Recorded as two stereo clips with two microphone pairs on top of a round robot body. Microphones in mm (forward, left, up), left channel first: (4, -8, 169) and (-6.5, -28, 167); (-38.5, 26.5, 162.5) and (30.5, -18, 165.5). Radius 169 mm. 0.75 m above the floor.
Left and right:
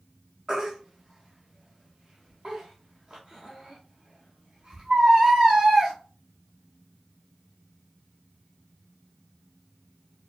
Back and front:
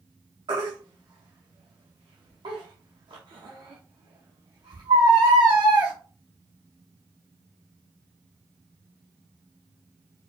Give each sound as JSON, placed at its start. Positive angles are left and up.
{"t": 0.5, "sound": "a baby crying", "azimuth_deg": -65, "distance_m": 0.5}